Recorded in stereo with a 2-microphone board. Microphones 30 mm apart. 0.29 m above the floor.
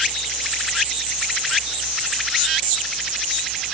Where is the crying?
No crying in this recording.